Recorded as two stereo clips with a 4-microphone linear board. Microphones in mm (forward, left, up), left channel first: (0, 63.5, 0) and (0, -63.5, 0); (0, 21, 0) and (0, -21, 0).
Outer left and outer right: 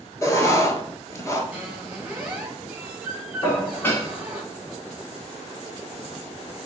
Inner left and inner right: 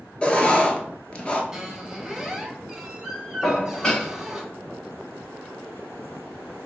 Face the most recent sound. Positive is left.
turn(degrees=20)  # may be behind; listen again after turning